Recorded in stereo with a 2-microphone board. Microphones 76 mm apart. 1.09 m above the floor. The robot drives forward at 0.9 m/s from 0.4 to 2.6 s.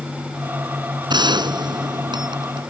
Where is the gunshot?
75° right (ahead or behind); by 2.7 s 80° right.